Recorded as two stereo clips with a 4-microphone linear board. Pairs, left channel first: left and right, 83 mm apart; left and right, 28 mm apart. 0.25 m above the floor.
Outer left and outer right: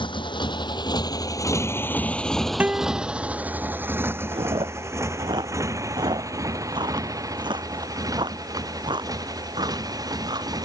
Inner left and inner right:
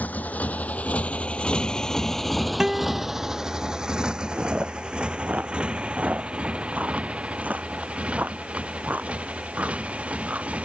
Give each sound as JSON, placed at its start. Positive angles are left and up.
{"t": 0.0, "sound": "a motorcycle", "side_deg": 80}
{"t": 2.6, "sound": "a guitar", "side_deg": -15}
{"t": 4.3, "sound": "chewing", "side_deg": -70}